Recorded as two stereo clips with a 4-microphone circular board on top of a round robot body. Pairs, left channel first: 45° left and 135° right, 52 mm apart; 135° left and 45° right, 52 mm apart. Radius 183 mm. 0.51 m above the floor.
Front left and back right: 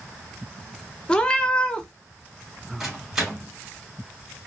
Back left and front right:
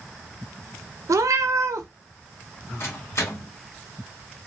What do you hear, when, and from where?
1.1 s a cat meowing: 30° right, 0.5 m
2.8 s a microwave: 145° left, 1.8 m